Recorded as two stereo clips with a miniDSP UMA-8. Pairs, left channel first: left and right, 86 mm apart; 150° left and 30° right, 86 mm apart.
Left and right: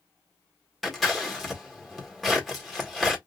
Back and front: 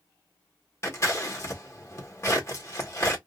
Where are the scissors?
Straight behind, 1.6 m.